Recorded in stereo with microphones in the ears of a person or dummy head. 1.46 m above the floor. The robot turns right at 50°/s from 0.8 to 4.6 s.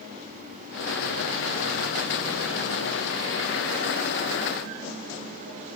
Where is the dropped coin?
No dropped coin in this recording.